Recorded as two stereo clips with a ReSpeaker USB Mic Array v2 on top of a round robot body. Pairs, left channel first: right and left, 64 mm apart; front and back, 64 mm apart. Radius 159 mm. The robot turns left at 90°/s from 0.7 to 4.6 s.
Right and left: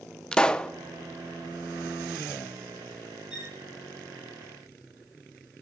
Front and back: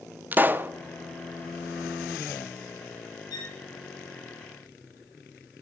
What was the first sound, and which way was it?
A pop, 155° right.